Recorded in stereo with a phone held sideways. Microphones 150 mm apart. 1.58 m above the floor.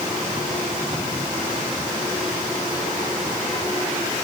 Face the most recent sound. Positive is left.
No sound to turn to.